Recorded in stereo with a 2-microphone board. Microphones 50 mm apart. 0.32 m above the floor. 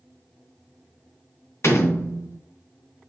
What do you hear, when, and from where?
1.6 s a door slam: 65° left (ahead or behind), 2.5 m